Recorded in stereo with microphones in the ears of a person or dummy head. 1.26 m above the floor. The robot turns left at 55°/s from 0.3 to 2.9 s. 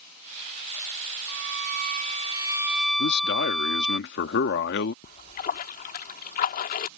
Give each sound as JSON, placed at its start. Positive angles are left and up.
{"t": 1.3, "sound": "a violin", "azimuth_deg": -95}
{"t": 3.0, "sound": "a man speaking", "side_deg": 55}
{"t": 5.0, "sound": "a splash", "side_deg": 45}